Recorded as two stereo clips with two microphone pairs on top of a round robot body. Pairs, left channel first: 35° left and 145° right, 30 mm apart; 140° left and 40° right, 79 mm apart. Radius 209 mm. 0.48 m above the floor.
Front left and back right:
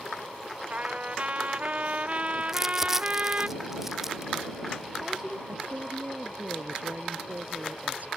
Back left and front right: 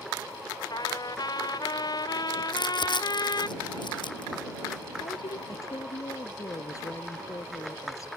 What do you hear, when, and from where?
0.7 s a trumpet: 175° left
2.5 s crumpling: 140° left
5.5 s a woman speaking: 170° right